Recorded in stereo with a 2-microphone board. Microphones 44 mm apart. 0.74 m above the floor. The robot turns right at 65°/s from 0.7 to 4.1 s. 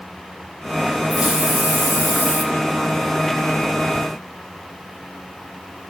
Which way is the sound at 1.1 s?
175° right.